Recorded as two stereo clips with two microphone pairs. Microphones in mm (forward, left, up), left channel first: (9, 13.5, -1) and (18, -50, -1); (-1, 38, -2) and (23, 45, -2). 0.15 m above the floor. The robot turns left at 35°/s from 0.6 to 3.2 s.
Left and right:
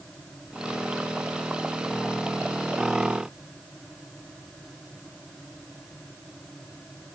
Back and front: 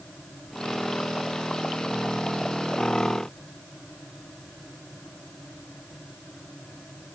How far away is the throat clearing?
No throat clearing in this recording.